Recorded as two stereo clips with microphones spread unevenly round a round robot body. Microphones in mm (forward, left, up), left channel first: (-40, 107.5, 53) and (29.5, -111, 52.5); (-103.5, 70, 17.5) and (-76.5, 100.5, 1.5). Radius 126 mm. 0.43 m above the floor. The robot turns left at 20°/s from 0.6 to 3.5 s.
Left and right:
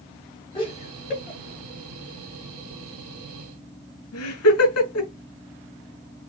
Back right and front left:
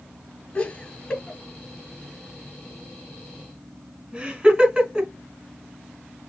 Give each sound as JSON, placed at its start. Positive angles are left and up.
{"t": 0.6, "sound": "laughter", "azimuth_deg": 175, "distance_m": 3.0}